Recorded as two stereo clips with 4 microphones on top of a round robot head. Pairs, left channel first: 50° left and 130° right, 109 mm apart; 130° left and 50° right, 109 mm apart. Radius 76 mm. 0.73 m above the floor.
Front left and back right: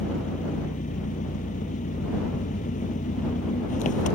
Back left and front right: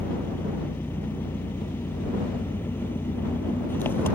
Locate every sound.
0.0 s an engine running: 55° left